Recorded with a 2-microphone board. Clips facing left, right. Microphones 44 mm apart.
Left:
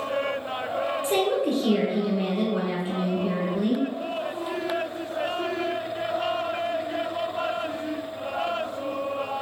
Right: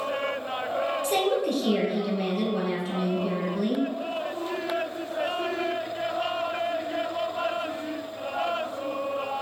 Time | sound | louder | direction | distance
1.0 | a woman speaking | left 2 dB | 25° left (ahead or behind) | 1.1 m